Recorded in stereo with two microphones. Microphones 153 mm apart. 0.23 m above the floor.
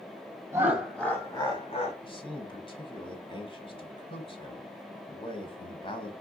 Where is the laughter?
20° right (ahead or behind), 1.1 m; by 1.9 s 45° left (ahead or behind), 1.5 m.